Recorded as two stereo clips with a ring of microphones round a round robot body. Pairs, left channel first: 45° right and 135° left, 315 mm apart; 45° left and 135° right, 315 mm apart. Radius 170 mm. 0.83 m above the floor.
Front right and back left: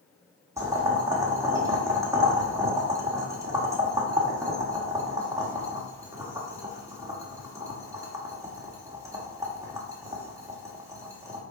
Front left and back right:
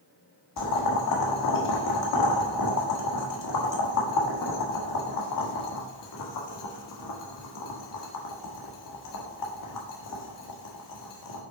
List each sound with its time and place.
0.6 s boiling: 55° left, 1.5 m